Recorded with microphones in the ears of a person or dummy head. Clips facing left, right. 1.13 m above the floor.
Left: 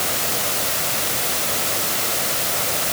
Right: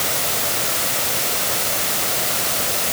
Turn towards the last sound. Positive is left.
No sound to turn to.